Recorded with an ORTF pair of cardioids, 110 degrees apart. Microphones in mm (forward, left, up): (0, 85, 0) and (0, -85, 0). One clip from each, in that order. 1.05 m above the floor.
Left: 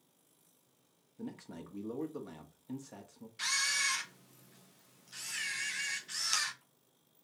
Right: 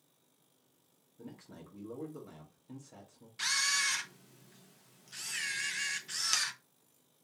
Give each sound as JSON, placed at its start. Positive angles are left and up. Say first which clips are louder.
{"t": 1.2, "sound": "a man speaking", "louder": "left 4 dB", "azimuth_deg": 30, "distance_m": 1.6}
{"t": 3.4, "sound": "a camera shutter", "louder": "right 1 dB", "azimuth_deg": -10, "distance_m": 0.9}